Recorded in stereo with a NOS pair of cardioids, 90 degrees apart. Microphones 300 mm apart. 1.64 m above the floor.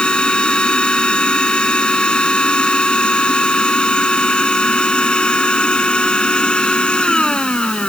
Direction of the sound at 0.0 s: 5° left.